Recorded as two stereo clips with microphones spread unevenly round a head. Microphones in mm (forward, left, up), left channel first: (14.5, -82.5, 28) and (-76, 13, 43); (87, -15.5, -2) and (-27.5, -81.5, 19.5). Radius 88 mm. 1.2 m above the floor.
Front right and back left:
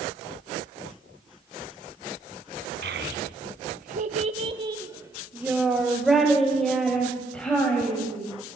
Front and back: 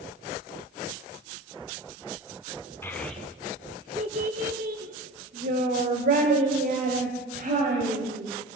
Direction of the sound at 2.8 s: 110° left.